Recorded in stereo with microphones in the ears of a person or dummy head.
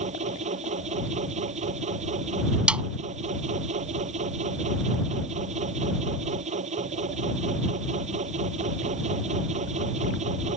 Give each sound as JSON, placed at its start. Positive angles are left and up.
{"t": 0.0, "sound": "a machine running", "side_deg": -35}
{"t": 2.7, "sound": "a snare drum", "side_deg": -5}